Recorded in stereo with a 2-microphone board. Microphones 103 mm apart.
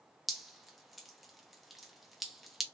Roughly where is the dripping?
Centre.